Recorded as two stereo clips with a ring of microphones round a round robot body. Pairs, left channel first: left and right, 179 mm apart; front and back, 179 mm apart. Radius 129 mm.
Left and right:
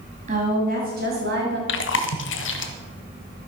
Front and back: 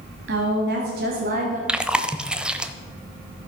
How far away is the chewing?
About 0.9 m.